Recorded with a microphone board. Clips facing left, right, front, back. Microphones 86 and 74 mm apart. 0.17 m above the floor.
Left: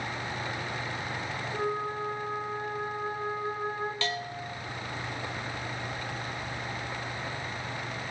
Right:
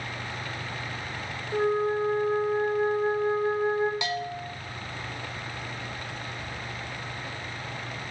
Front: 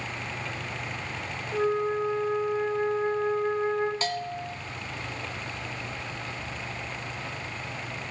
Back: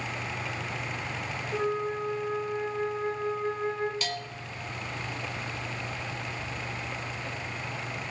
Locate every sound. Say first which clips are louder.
1.5 s a flute: right 8 dB, front 4 dB; 75° right, 6 m
4.0 s a bell: right 3 dB, front 5 dB; 25° right, 1.1 m